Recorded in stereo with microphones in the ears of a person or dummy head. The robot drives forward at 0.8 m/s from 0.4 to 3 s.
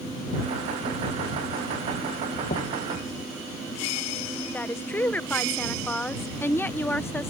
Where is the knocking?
40° left (ahead or behind); by 2.9 s 55° left (ahead or behind).